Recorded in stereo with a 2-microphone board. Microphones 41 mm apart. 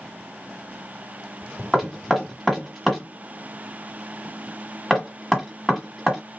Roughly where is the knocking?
Centre.